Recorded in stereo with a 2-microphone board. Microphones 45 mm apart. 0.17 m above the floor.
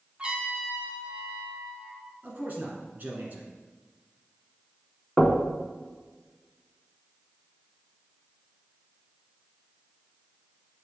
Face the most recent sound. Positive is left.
turn(degrees=0)  # may be behind; listen again after turning